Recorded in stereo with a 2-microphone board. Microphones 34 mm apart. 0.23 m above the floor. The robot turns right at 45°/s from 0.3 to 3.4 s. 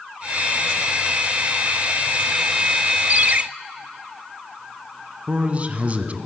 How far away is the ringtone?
About 0.7 m.